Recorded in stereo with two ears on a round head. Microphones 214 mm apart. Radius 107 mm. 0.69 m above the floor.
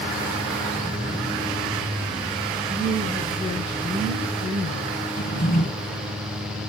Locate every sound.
2.7 s a woman speaking: 30° left (ahead or behind), 6.5 m
5.2 s a drawer: 40° left (ahead or behind), 7 m